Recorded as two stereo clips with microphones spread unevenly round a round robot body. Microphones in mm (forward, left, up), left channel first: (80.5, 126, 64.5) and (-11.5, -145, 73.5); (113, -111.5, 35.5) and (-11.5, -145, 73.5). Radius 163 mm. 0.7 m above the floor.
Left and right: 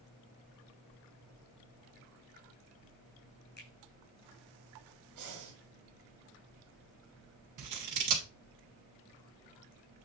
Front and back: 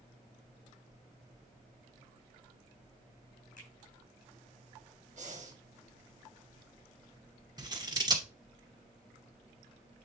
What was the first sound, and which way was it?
A finger snap, 15° left.